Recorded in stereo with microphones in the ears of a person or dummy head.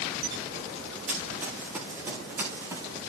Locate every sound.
1.1 s running footsteps: 10° right (ahead or behind), 5.5 m; by 2.9 s 20° right (ahead or behind), 4.5 m